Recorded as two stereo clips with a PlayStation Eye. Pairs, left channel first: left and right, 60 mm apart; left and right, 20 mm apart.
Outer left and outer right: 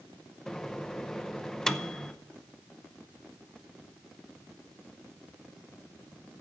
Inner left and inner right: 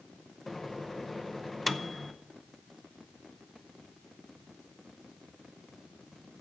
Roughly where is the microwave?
Centre.